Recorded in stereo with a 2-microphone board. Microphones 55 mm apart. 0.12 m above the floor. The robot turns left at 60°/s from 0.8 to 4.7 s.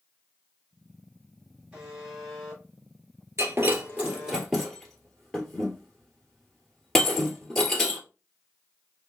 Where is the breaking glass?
55° right (ahead or behind), 1.7 m; by 8.0 s 10° left (ahead or behind), 1.7 m.